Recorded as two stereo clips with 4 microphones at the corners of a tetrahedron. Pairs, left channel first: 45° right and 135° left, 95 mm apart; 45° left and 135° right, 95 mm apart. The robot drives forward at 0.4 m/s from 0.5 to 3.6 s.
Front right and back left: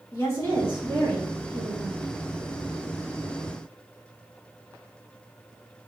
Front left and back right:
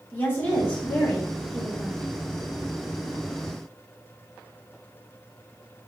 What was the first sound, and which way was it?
A woman speaking, 10° right.